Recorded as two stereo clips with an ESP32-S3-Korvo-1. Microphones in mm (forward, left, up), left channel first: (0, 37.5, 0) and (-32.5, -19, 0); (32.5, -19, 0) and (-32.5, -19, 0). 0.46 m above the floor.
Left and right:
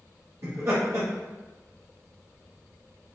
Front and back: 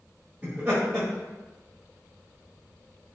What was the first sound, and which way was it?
Laughter, 115° right.